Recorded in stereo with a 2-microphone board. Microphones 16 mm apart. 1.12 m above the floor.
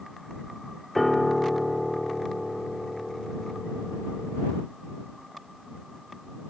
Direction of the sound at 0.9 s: 15° left (ahead or behind).